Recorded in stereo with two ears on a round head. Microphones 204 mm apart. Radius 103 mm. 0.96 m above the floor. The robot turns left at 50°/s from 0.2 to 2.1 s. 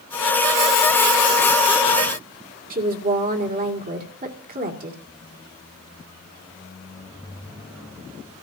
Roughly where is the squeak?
Centre.